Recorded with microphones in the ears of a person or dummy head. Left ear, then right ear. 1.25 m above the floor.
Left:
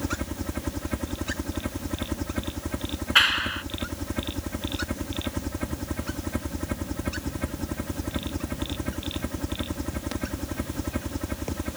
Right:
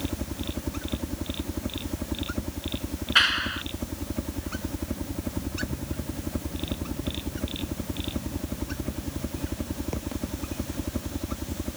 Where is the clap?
20° left (ahead or behind).